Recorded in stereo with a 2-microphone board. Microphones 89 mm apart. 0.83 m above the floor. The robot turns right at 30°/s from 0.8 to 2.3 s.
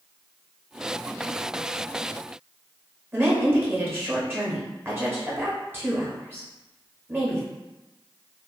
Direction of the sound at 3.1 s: 25° right (ahead or behind).